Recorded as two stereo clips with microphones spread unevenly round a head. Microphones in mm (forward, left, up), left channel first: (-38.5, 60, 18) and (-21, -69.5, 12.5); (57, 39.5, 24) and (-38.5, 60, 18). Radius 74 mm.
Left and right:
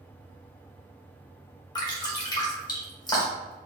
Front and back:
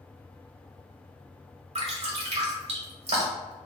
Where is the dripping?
155° left, 1.5 m.